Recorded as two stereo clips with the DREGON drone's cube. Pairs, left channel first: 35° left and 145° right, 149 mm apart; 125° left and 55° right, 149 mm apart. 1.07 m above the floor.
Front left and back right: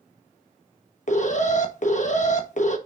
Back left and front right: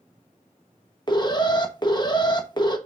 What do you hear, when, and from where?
1.1 s an alarm: 65° left, 1.2 m